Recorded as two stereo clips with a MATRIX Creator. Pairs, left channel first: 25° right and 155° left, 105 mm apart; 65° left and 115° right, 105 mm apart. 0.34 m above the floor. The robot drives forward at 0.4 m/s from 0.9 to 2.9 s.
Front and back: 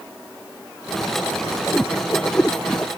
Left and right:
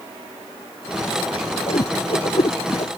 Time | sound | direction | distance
1.7 | a whoosh | 50° left | ?